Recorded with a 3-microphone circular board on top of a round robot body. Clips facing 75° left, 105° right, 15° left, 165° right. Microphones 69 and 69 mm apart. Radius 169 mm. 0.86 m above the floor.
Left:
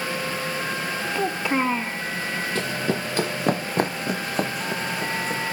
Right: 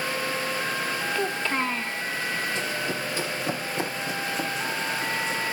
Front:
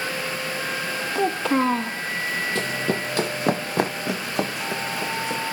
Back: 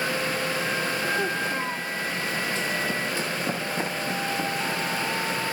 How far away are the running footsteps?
About 2 m.